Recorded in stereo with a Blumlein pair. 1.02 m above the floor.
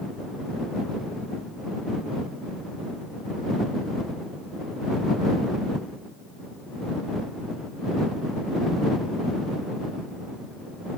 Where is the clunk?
No clunk in this recording.